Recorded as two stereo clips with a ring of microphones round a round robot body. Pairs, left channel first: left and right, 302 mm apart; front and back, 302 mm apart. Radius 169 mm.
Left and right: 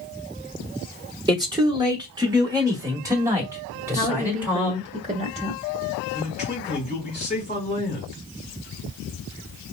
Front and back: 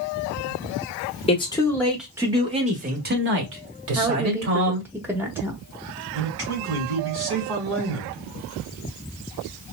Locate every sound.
1.3 s a man speaking: 35° right, 1.1 m; by 4.9 s 175° right, 1.9 m
4.0 s a woman speaking: 110° right, 1.0 m
6.1 s a man speaking: 155° left, 1.7 m